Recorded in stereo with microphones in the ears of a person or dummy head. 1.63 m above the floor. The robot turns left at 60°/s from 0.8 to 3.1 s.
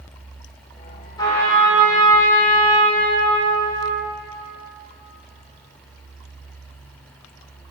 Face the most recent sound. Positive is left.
turn(degrees=-90)